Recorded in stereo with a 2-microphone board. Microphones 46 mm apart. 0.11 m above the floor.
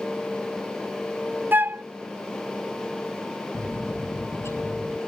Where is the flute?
50° right (ahead or behind).